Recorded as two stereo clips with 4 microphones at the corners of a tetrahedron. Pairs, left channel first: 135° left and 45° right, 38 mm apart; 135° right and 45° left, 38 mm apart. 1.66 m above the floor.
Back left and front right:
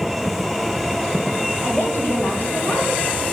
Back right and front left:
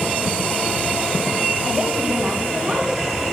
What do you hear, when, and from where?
1.6 s a woman speaking: 100° left, 4.5 m